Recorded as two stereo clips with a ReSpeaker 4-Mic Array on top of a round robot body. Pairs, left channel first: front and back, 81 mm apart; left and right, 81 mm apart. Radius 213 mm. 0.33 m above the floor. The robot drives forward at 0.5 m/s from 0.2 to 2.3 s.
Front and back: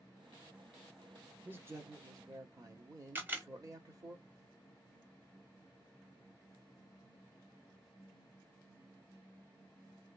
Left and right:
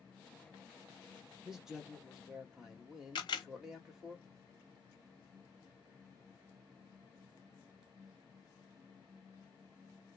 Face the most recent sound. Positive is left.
turn(degrees=110)